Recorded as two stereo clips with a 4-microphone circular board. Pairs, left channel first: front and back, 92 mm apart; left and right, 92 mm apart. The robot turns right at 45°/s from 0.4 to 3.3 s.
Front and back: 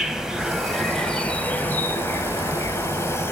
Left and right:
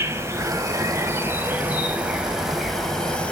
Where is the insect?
100° right, 0.9 m; by 3.3 s 30° left, 0.9 m.